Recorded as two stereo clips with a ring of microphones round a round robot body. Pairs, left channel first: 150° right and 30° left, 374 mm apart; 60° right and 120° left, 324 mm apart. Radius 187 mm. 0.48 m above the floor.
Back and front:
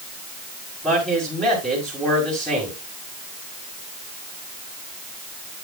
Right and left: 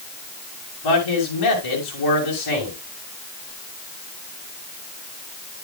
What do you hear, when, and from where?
0.8 s a man speaking: 60° right, 6 m